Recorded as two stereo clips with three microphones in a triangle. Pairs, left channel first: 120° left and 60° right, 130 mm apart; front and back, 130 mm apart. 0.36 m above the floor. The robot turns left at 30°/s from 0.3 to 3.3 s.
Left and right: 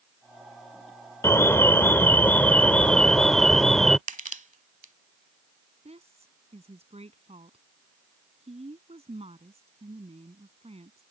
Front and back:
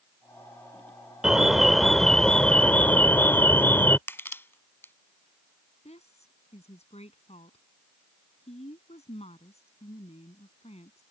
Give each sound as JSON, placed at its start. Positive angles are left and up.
{"t": 1.2, "sound": "an alarm", "azimuth_deg": 100}
{"t": 4.1, "sound": "crushing", "azimuth_deg": -70}
{"t": 5.8, "sound": "a woman speaking", "azimuth_deg": -30}